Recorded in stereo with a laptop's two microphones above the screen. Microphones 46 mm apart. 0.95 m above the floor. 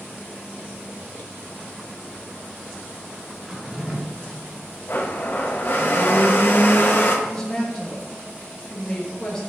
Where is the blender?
50° left (ahead or behind), 1.3 m.